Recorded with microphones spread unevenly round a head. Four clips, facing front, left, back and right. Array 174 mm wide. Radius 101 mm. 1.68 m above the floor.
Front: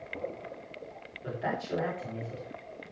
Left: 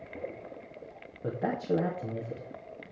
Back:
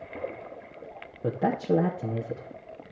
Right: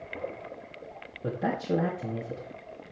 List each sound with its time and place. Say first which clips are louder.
1.2 s a man speaking: right 1 dB, back 8 dB; 175° right, 2.5 m